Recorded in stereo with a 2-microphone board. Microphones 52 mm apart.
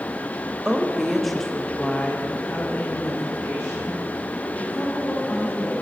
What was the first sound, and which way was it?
A woman speaking, 15° right (ahead or behind).